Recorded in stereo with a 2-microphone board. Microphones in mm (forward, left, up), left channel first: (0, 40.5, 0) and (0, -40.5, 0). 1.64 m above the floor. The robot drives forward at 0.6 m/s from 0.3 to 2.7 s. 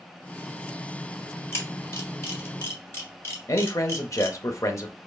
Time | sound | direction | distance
1.5 | a camera shutter | 30° left (ahead or behind) | 1.7 m
3.5 | a man speaking | 40° left (ahead or behind) | 0.7 m